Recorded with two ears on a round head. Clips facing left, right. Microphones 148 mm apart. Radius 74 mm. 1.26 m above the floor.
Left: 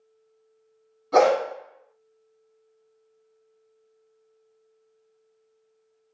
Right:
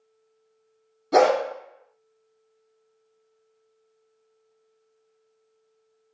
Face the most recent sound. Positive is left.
turn(degrees=-40)  # may be behind; listen again after turning